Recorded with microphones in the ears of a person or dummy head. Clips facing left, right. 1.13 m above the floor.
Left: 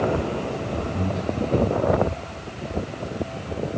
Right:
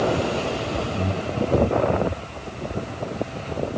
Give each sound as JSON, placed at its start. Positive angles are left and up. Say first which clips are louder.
{"t": 0.9, "sound": "breathing", "louder": "even", "side_deg": 30, "distance_m": 4.0}